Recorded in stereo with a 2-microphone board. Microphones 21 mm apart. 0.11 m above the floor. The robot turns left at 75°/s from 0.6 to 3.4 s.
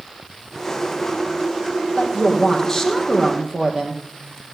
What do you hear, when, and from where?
2.0 s a woman speaking: 75° left, 3.5 m; by 4.0 s 30° right, 3.5 m